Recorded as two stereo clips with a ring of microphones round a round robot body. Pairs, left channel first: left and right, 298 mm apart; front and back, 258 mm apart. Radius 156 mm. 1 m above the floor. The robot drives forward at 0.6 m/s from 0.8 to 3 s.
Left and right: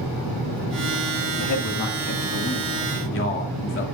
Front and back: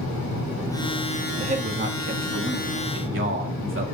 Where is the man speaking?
115° left, 1.7 m; by 3.8 s 140° left, 2.5 m.